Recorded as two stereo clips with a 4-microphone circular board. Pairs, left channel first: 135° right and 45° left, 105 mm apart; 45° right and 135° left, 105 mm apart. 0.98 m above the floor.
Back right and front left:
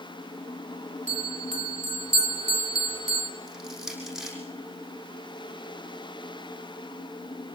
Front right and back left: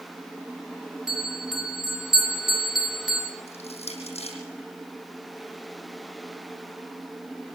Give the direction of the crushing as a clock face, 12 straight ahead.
1 o'clock.